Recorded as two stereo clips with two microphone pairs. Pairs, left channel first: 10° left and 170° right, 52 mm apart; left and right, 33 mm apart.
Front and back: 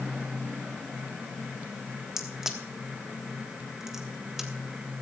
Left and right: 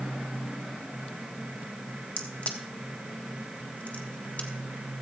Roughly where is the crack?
Left.